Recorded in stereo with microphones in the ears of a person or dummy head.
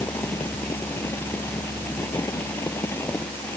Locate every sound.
0.0 s a fan: 10° left (ahead or behind)